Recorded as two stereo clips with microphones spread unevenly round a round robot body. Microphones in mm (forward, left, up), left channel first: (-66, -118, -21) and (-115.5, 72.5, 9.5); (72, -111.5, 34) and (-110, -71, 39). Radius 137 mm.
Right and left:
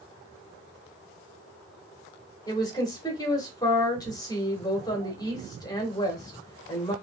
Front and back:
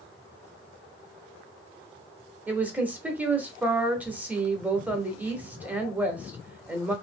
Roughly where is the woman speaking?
Behind right.